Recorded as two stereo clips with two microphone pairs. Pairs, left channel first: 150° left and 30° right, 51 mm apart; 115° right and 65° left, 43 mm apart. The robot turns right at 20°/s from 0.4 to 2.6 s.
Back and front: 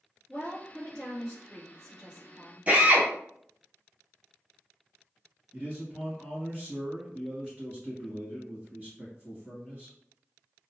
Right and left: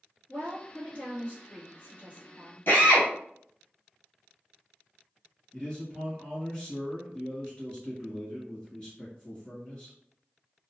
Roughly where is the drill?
Right.